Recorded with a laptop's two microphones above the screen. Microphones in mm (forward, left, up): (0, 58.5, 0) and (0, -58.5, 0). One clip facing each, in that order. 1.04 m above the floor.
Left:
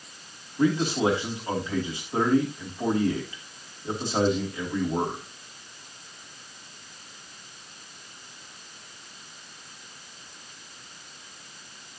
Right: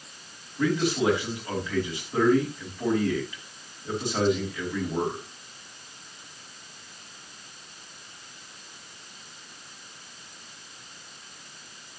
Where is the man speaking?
15° left (ahead or behind), 3 m.